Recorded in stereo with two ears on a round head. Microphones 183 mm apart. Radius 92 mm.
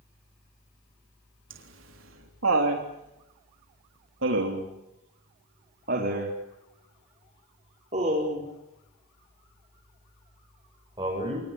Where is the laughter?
70° right (ahead or behind), 4 m; by 11.5 s 25° right (ahead or behind), 8 m.